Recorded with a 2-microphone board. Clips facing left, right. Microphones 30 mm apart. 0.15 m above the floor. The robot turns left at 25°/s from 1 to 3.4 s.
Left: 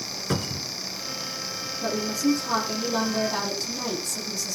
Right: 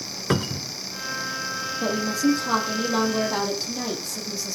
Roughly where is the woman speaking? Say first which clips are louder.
Right 2 dB; behind right.